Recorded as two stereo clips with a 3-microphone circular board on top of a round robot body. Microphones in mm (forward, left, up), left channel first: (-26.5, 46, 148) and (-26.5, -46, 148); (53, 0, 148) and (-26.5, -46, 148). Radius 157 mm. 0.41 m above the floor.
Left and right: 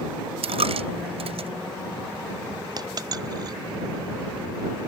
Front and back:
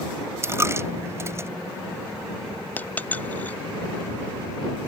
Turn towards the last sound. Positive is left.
turn(degrees=-45)